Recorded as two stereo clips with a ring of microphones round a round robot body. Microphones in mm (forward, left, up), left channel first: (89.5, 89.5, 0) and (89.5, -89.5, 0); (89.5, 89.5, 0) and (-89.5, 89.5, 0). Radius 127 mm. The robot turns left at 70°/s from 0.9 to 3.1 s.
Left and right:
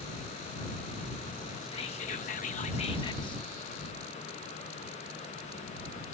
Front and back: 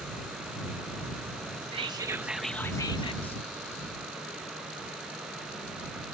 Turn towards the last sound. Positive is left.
turn(degrees=40)